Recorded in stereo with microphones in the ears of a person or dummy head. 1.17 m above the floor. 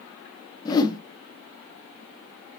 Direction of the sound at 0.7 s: 15° left (ahead or behind).